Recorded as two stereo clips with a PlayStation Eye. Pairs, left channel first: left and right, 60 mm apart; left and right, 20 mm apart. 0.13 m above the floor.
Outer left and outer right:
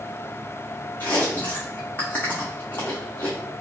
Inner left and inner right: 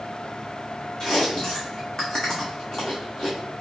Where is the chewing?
30° left (ahead or behind), 1.3 m.